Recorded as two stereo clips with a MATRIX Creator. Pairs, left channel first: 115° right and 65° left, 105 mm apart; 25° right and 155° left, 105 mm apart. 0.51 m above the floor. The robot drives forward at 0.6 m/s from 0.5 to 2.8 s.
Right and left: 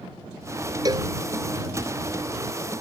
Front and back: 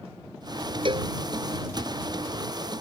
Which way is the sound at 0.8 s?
120° left.